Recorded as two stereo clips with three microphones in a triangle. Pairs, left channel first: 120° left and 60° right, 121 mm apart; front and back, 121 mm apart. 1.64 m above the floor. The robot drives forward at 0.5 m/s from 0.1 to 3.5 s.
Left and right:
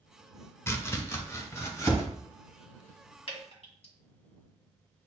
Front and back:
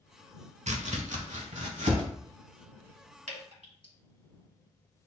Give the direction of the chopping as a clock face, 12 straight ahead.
6 o'clock.